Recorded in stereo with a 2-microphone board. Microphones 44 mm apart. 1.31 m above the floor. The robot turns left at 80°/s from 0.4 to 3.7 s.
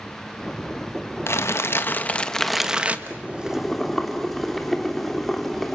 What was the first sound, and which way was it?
Crumpling, 100° left.